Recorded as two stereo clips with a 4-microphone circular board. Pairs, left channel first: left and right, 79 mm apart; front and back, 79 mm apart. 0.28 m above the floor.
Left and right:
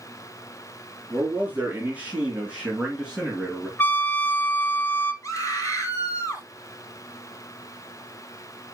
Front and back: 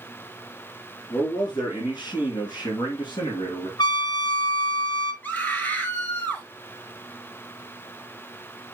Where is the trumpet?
25° left, 0.9 m.